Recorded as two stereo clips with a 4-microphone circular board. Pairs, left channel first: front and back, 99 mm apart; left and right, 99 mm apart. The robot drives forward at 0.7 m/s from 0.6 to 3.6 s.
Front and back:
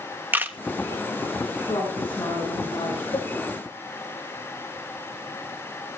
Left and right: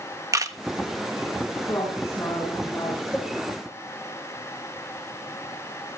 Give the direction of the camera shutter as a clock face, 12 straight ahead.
4 o'clock.